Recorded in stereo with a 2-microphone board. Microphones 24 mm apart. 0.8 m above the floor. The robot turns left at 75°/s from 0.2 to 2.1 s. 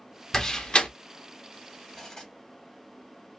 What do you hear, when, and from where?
0.3 s a door slam: 25° left (ahead or behind), 0.8 m; by 0.9 s 60° left (ahead or behind), 0.8 m
1.9 s cutlery clinking: 20° left (ahead or behind), 1.5 m; by 2.3 s 30° left (ahead or behind), 1.5 m